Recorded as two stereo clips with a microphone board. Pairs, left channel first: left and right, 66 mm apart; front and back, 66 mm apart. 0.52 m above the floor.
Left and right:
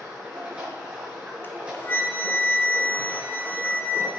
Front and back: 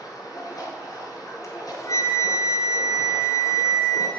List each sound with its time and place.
0.0 s running water: 20° right, 7 m
1.4 s a flute: 30° left, 1.8 m